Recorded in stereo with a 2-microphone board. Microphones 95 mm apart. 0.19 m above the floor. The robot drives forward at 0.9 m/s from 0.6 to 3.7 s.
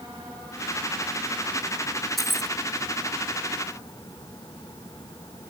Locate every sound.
2.2 s keys jangling: centre (ahead or behind)